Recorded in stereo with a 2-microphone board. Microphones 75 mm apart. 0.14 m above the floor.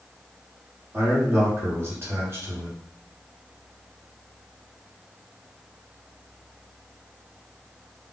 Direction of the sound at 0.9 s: 35° right (ahead or behind).